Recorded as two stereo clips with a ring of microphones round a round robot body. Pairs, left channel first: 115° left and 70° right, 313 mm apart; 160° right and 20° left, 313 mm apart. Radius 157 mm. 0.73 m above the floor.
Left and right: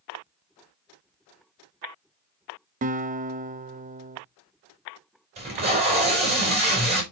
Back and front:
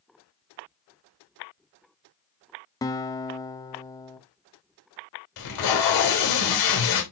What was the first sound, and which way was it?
A guitar, 95° right.